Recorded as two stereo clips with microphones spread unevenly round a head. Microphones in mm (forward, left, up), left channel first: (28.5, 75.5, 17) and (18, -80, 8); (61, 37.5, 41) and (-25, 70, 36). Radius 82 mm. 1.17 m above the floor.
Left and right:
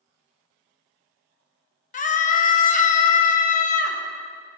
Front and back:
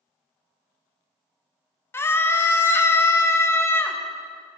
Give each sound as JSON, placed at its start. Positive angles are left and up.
{"t": 1.9, "sound": "a scream", "azimuth_deg": 45, "distance_m": 1.2}